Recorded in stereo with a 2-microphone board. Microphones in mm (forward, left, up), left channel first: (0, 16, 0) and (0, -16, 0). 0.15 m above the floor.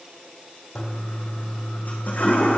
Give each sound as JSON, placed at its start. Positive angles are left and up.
{"t": 0.8, "sound": "a toilet flushing", "side_deg": 55, "distance_m": 2.5}